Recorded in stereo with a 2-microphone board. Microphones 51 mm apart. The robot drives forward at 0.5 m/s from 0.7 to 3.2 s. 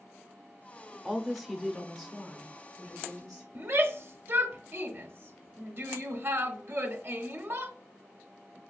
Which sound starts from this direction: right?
A shout, at 3.5 s.